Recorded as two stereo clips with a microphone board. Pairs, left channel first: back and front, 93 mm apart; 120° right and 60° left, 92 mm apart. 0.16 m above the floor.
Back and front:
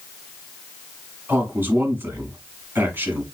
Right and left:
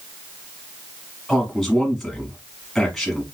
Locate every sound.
1.3 s a man speaking: 35° right, 1.4 m